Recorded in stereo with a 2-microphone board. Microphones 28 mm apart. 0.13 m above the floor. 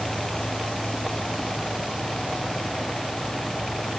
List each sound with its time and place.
Only background noise.